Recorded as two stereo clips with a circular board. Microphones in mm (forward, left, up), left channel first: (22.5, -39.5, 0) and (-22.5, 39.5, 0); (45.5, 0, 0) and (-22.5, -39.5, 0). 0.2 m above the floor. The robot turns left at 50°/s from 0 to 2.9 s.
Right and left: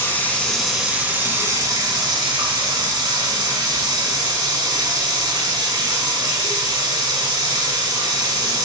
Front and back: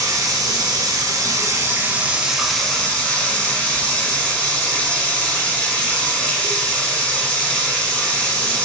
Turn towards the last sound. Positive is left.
turn(degrees=100)